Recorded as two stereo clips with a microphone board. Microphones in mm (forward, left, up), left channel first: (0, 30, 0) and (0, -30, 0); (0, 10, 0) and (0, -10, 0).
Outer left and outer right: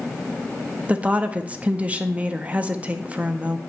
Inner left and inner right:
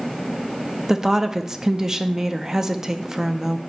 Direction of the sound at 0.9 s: 25° right (ahead or behind).